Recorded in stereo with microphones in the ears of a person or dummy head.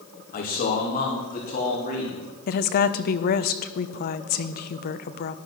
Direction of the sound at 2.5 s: 40° left (ahead or behind).